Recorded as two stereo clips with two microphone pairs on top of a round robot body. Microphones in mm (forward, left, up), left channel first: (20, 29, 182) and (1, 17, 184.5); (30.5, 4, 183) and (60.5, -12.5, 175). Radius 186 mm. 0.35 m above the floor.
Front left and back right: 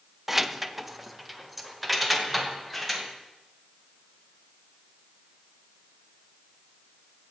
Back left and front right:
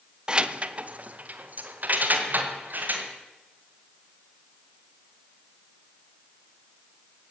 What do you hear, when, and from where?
0.3 s keys jangling: 60° right, 0.8 m; by 3.0 s 50° right, 2.5 m